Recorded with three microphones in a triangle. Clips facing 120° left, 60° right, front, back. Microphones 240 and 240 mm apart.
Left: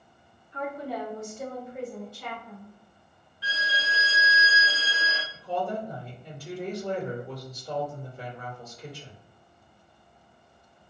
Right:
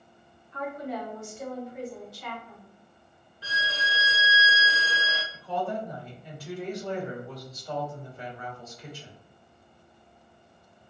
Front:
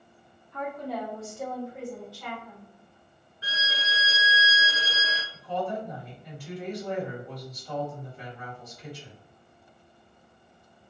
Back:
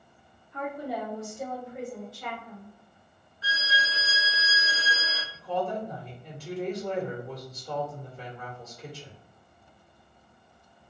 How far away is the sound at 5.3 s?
About 1.7 m.